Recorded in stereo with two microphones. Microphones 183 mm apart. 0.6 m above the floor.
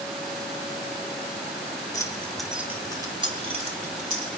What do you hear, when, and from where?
1.9 s keys jangling: 20° left (ahead or behind), 1.2 m; by 4.3 s 45° right (ahead or behind), 2.5 m